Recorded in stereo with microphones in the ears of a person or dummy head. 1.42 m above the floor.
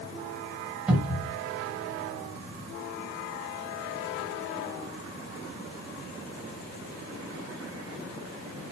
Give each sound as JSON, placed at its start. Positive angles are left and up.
{"t": 0.9, "sound": "a cupboard door", "side_deg": -5, "distance_m": 1.5}